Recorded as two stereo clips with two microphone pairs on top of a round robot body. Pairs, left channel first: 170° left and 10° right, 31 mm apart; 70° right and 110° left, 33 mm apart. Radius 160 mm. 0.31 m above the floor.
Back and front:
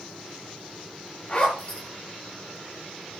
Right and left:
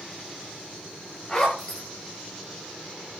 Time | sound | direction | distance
1.3 | a zipper | 135° right | 8 m